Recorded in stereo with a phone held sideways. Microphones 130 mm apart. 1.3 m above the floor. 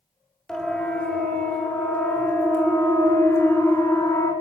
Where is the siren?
5° left (ahead or behind), 5.5 m; by 4.3 s 25° left (ahead or behind), 6.5 m.